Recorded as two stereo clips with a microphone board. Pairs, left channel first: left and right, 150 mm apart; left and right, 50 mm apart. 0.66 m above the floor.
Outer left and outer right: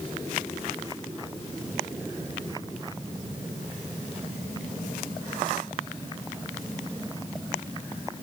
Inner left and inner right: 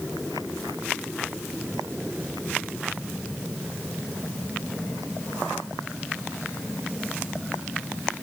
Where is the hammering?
No hammering in this recording.